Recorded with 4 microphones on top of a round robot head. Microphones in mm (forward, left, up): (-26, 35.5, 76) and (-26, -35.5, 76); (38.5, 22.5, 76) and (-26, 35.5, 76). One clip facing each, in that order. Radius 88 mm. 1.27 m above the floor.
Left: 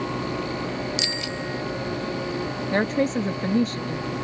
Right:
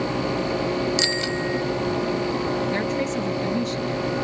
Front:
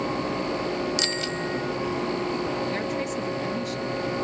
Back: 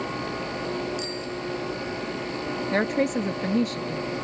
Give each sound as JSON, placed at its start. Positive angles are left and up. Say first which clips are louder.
{"t": 1.0, "sound": "a bicycle bell", "louder": "right 5 dB, front 3 dB", "azimuth_deg": -35}
{"t": 2.7, "sound": "a woman speaking", "louder": "left 2 dB, back 4 dB", "azimuth_deg": 130}